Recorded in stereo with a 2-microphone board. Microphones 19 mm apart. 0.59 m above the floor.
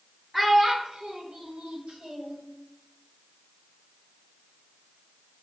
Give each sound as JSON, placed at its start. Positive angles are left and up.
{"t": 0.3, "sound": "a child speaking", "side_deg": -15, "distance_m": 0.9}